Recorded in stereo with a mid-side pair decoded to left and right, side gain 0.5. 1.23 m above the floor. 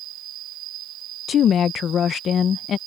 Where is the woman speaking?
55° left.